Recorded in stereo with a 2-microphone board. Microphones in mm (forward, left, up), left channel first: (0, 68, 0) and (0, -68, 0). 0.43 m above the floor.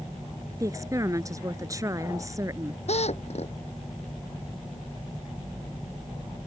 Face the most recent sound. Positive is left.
turn(degrees=55)  # may be behind; listen again after turning